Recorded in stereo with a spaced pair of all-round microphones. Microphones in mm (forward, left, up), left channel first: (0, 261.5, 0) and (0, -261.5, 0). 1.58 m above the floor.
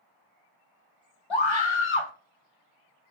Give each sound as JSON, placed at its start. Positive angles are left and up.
{"t": 1.3, "sound": "a scream", "side_deg": 60, "distance_m": 0.7}